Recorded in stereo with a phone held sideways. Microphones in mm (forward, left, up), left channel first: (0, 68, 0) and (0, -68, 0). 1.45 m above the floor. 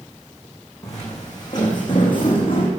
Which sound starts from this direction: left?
Footsteps, at 0.8 s.